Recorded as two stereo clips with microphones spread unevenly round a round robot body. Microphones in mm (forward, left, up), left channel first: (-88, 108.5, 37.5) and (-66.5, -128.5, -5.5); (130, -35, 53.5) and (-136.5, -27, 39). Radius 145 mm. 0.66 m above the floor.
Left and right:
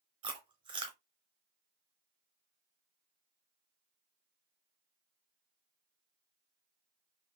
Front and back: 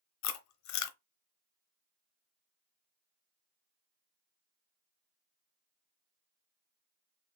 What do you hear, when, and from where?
0.2 s chewing: 5° right, 0.6 m